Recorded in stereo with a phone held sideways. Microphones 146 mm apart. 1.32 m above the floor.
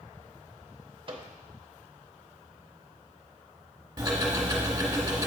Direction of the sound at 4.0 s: 30° right (ahead or behind).